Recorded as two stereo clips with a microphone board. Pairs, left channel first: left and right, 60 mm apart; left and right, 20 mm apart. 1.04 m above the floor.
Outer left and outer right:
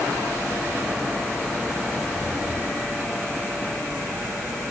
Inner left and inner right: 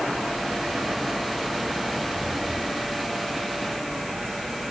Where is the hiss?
I don't hear a hiss.